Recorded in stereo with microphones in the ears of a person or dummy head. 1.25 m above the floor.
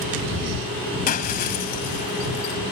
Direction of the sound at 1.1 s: 40° left (ahead or behind).